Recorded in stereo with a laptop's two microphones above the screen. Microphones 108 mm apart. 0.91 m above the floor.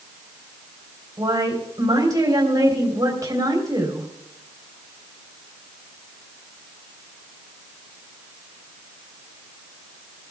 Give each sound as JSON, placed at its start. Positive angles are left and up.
{"t": 1.2, "sound": "a woman speaking", "side_deg": -35, "distance_m": 3.5}